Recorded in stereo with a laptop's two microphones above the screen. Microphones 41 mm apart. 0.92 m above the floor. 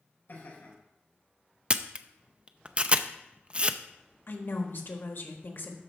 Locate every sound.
0.3 s laughter: 55° left (ahead or behind), 5 m
1.7 s a camera shutter: 30° right (ahead or behind), 0.6 m
4.3 s a woman speaking: 60° left (ahead or behind), 1.3 m